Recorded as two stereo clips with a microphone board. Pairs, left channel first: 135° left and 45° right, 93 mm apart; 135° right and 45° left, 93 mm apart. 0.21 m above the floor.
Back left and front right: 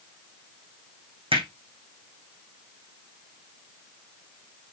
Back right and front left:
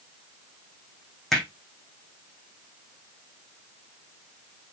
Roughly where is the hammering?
Ahead right.